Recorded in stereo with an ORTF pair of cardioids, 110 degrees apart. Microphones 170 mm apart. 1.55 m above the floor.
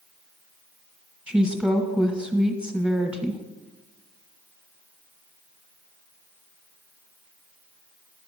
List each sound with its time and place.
1.3 s a woman speaking: 5° right, 1.3 m